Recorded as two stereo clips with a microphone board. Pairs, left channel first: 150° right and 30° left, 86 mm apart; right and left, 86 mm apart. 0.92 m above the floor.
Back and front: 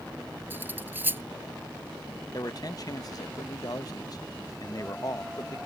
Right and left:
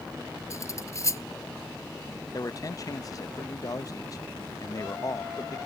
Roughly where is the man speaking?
Behind right.